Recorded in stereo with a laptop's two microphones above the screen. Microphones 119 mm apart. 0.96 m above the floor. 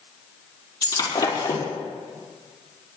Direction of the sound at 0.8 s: 35° left (ahead or behind).